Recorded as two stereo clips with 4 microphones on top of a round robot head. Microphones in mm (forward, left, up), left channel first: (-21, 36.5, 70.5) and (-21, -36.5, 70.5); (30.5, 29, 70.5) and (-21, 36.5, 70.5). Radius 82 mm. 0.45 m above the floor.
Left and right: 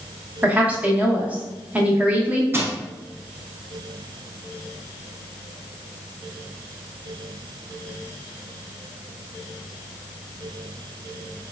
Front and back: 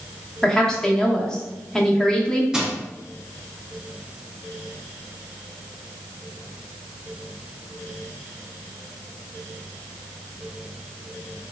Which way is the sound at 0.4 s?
60° right.